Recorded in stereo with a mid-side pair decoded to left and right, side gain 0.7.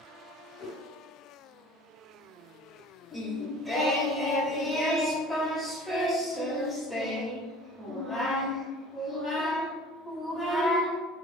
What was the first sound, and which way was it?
A whoosh, 50° left.